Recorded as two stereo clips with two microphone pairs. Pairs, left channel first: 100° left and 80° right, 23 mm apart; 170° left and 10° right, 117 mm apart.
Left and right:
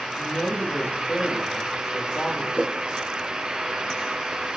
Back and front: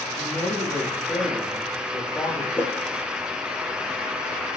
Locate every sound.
0.2 s a man speaking: 95° left, 6.5 m
2.6 s a whoosh: 95° left, 2.5 m